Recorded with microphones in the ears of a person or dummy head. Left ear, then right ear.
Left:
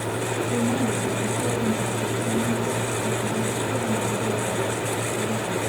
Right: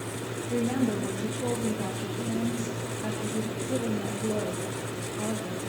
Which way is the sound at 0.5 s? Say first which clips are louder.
Even; 65° right (ahead or behind).